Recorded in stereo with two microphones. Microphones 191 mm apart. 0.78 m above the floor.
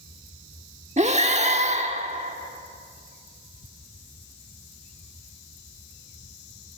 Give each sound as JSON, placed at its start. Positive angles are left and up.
{"t": 1.0, "sound": "breathing", "side_deg": -35, "distance_m": 1.2}